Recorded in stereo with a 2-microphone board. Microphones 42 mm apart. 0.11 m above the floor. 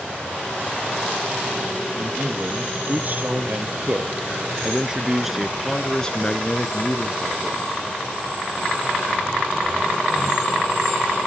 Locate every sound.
2.0 s a man speaking: 50° right (ahead or behind), 3 m; by 7.7 s 50° left (ahead or behind), 1.9 m